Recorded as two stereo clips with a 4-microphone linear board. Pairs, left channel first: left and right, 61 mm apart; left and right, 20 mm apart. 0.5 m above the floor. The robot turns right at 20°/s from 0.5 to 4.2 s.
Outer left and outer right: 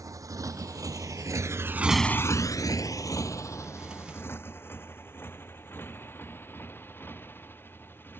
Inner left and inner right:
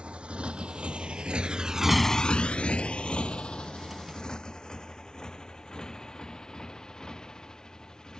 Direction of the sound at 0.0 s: 80° right.